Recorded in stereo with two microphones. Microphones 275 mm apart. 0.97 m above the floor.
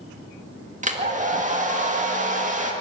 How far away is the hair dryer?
About 1.9 m.